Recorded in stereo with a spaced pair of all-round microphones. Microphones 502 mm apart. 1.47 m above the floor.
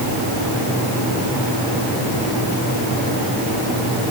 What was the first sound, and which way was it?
Only background noise.